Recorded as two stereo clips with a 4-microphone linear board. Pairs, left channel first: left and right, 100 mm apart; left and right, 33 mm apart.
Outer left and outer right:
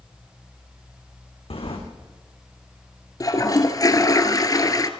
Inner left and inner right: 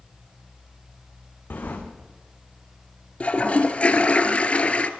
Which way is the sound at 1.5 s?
80° left.